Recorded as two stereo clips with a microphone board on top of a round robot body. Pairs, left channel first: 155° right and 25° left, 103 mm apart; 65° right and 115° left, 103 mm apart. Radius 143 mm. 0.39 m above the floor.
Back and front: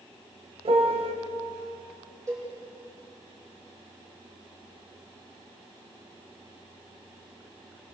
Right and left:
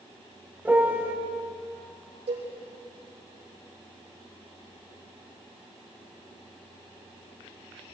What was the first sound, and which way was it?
A piano, 40° left.